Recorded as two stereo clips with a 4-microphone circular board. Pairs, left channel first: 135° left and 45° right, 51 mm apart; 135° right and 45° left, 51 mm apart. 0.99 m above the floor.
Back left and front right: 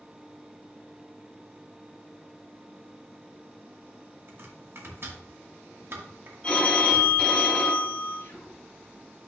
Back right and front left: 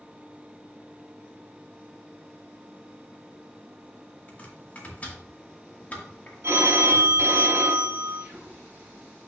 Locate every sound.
4.3 s chopping: 75° right, 1.9 m
6.4 s a phone ringing: 65° left, 2 m
8.2 s whispering: 100° left, 1.6 m